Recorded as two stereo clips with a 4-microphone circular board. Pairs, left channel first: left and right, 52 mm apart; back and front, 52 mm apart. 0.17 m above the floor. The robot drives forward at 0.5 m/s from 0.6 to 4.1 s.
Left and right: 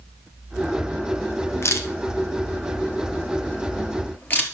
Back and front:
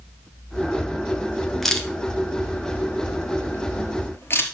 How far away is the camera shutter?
About 1.3 m.